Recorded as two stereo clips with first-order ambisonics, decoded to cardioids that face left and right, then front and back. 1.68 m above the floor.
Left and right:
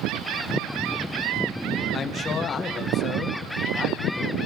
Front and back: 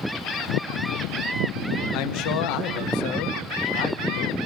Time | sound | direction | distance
1.9 | a man speaking | 20° left | 1.8 m